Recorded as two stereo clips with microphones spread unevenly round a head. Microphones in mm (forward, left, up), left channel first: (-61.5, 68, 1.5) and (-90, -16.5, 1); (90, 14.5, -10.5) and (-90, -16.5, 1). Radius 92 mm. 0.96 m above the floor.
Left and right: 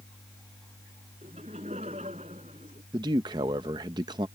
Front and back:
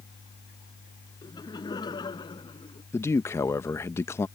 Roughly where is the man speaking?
Ahead right.